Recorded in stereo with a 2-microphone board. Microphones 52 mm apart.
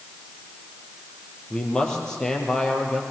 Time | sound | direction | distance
1.5 | a man speaking | 15° left (ahead or behind) | 4.5 m